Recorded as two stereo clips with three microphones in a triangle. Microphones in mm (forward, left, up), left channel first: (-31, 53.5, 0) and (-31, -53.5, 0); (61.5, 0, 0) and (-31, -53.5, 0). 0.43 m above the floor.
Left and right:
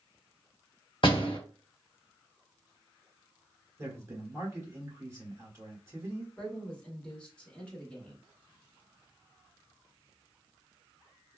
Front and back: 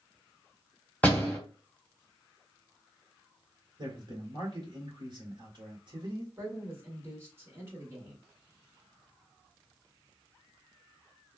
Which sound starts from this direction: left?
A door slam, at 1.0 s.